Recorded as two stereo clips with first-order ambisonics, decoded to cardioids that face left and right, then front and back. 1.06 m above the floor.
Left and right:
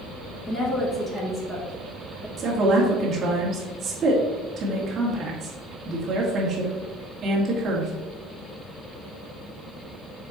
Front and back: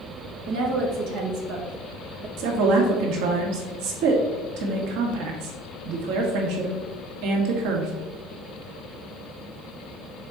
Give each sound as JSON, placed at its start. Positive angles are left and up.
{"t": 0.5, "sound": "a woman speaking", "azimuth_deg": 165, "distance_m": 1.5}
{"t": 2.4, "sound": "a woman speaking", "azimuth_deg": -160, "distance_m": 1.6}